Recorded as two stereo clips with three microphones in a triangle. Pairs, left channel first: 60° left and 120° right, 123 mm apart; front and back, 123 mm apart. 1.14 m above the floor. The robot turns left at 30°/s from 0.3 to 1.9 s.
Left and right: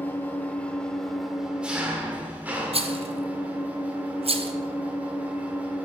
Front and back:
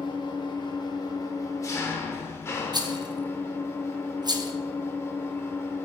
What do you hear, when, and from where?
0.0 s an engine running: 5° right, 0.9 m; by 5.9 s 50° right, 0.9 m
2.7 s a rattle: 135° right, 0.5 m